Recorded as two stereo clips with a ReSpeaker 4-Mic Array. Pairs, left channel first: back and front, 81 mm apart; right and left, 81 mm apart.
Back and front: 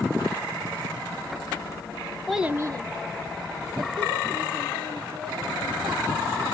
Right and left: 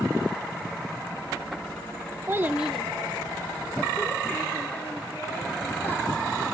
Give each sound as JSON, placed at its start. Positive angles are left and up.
{"t": 2.3, "sound": "a child speaking", "azimuth_deg": 100, "distance_m": 0.6}